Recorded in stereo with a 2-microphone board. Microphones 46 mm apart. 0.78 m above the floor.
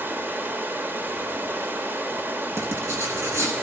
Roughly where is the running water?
Right.